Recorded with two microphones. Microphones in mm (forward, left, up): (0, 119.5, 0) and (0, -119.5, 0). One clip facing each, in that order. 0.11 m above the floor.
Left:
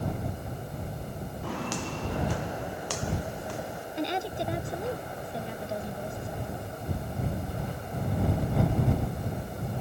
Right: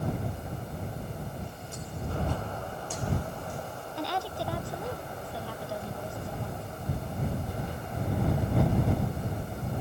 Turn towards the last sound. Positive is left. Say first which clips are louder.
# left 3 dB
turn(degrees=20)  # may be behind; listen again after turning